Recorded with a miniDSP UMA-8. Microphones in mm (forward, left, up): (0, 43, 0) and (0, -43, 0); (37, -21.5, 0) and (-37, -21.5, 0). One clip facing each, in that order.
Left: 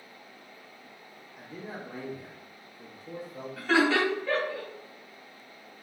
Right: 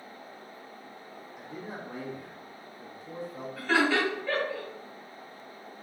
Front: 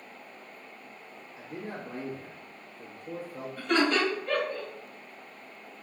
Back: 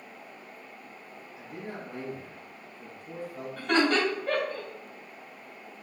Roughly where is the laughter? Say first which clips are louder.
Left 2 dB, back 1 dB; behind.